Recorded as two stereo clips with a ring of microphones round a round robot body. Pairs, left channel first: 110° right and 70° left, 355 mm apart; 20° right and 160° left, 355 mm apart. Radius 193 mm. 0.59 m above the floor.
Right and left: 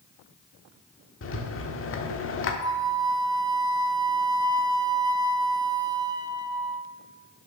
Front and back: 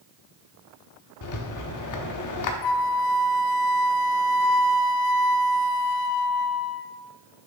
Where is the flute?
10° right, 0.6 m.